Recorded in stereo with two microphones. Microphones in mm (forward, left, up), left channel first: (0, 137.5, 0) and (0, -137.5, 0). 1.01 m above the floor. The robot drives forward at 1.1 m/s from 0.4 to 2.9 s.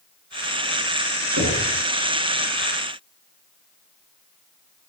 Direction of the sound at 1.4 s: 75° right (ahead or behind).